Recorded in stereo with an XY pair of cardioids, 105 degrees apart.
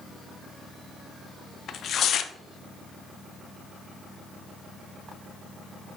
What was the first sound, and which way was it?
Tearing paper, 55° left.